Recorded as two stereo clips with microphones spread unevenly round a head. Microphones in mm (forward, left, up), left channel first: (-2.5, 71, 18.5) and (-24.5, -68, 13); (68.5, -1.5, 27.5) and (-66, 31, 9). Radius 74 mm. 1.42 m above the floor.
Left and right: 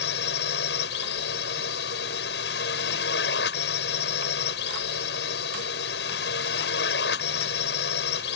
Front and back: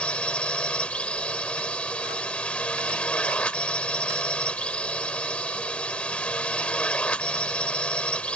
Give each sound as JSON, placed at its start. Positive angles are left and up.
{"t": 0.0, "sound": "a drone", "azimuth_deg": 70}